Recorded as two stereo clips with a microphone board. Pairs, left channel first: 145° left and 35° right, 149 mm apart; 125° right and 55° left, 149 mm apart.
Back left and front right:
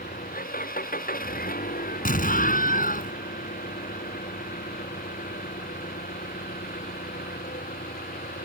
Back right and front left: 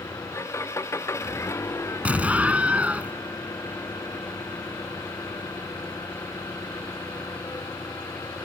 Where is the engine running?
165° left.